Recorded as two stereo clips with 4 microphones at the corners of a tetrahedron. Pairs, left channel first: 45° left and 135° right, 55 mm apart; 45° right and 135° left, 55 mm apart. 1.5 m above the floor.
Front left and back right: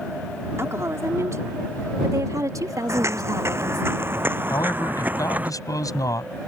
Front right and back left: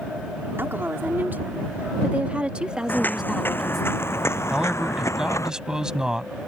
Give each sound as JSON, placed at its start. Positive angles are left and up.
{"t": 0.6, "sound": "a woman speaking", "azimuth_deg": -175}
{"t": 2.9, "sound": "footsteps", "azimuth_deg": -100}
{"t": 4.5, "sound": "a man speaking", "azimuth_deg": 55}